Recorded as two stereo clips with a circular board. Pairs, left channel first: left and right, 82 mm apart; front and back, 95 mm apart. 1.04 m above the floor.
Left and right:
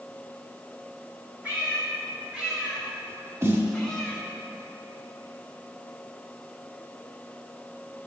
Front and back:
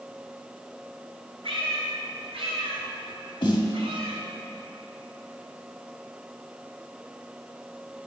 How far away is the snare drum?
About 1.9 m.